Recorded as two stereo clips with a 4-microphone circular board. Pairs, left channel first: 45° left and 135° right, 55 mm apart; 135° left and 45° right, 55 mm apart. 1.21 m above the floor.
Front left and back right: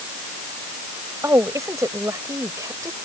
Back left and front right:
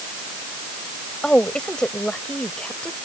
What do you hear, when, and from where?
1.2 s a woman speaking: 150° right